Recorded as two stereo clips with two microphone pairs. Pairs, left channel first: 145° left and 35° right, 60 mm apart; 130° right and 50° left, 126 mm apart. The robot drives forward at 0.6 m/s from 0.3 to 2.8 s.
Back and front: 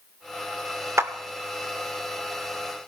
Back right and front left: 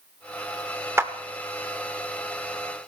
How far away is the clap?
About 0.8 m.